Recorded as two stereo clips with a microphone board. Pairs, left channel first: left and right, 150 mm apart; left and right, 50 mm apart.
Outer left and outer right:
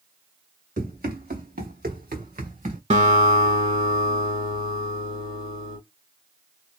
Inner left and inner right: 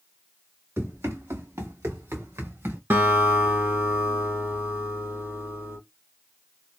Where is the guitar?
50° right (ahead or behind), 1.0 m.